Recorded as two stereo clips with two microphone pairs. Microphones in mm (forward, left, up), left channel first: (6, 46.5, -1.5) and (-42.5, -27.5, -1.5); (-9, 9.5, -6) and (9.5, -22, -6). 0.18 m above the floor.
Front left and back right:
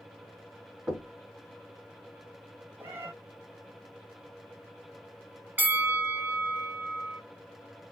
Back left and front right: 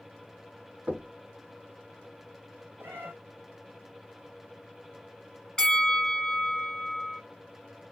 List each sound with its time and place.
0.9 s knocking: 45° right, 1.6 m
2.8 s a cat meowing: 60° right, 1.3 m
5.6 s a bell: 175° right, 0.9 m